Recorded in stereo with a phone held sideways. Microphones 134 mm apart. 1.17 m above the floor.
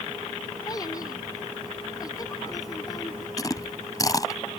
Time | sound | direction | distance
0.7 | a child speaking | 30° left (ahead or behind) | ?
3.4 | chewing | 25° left (ahead or behind) | ?